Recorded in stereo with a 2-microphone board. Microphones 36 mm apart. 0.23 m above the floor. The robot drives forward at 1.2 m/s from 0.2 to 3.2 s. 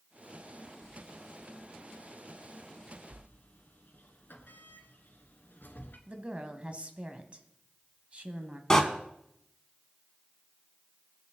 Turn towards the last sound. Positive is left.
turn(degrees=20)  # may be behind; listen again after turning